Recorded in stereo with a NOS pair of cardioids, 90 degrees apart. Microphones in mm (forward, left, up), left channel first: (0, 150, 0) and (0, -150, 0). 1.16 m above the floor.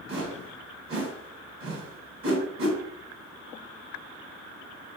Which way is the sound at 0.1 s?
45° right.